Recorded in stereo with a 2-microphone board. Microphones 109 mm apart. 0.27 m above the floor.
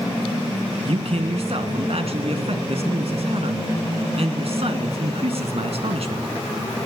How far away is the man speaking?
About 2.5 m.